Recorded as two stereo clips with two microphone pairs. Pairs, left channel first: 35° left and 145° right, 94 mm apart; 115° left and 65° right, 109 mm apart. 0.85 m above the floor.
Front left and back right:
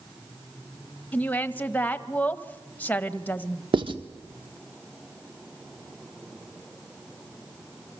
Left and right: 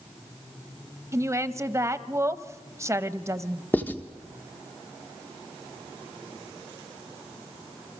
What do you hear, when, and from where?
1.1 s a woman speaking: 25° right, 1.0 m
3.7 s writing: 175° right, 1.3 m